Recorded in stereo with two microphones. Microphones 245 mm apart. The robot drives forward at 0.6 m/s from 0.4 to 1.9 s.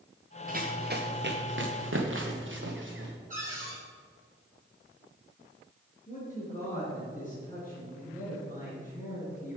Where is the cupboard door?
30° right (ahead or behind), 3 m.